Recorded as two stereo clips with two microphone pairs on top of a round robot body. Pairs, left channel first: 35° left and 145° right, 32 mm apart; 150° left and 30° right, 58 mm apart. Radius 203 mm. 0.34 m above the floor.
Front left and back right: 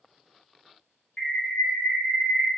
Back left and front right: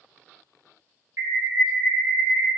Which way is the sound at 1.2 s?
15° right.